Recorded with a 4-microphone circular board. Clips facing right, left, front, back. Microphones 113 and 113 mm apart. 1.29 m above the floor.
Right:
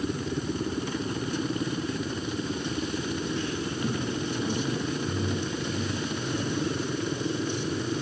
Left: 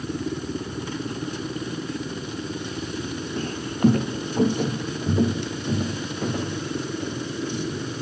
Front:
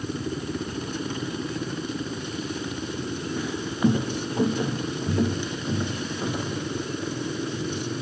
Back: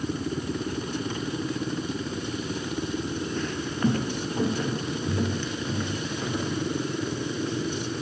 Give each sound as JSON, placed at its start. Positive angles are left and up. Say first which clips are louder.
{"t": 3.4, "sound": "footsteps", "louder": "left 6 dB, front 4 dB", "azimuth_deg": 80, "distance_m": 1.7}